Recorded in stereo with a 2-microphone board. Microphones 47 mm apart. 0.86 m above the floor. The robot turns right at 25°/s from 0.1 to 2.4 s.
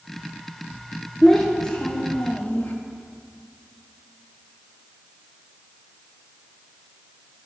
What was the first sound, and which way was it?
A child speaking, 5° left (ahead or behind).